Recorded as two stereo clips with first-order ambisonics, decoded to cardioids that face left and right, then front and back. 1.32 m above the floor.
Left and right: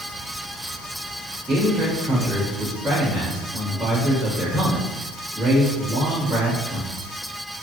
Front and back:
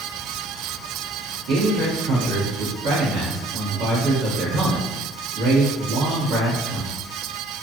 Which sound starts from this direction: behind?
A man speaking, at 1.5 s.